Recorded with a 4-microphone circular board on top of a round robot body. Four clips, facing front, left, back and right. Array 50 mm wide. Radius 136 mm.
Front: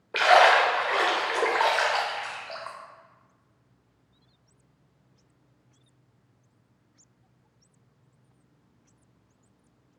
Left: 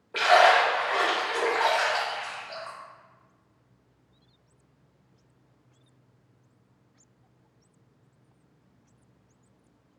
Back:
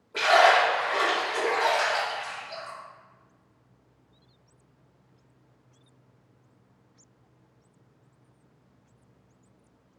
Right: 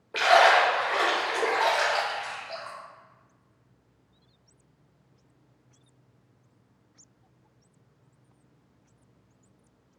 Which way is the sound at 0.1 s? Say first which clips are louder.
Even, front 1 dB; 5° right.